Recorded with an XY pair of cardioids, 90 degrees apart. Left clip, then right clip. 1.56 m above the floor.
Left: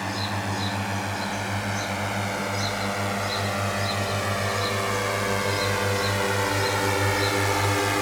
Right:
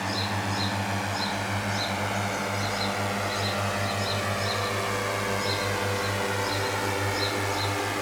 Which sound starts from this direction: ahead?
A drone, at 0.0 s.